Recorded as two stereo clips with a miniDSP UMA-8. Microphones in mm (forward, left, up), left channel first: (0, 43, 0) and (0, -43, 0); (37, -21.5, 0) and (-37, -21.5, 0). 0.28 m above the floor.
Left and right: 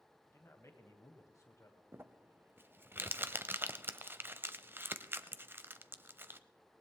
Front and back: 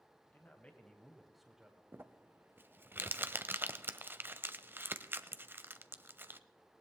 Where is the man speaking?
45° left, 1.5 m; by 1.8 s 110° left, 1.4 m.